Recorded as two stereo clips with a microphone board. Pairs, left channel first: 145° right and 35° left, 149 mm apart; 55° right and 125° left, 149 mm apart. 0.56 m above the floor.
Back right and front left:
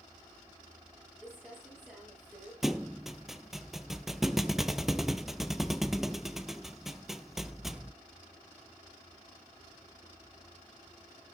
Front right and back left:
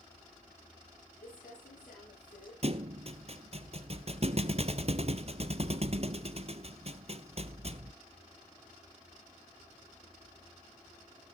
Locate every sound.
1.2 s crumpling: 55° right, 9 m
2.6 s a thud: 120° left, 0.7 m